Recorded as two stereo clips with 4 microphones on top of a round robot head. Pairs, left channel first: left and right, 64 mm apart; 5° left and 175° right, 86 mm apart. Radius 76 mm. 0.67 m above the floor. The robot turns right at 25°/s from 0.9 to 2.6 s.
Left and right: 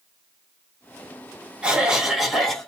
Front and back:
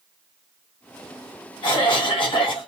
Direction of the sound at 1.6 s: 20° right.